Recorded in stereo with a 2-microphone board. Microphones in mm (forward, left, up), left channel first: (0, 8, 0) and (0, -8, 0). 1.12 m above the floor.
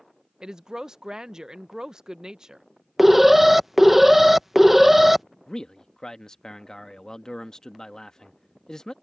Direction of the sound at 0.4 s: 45° right (ahead or behind).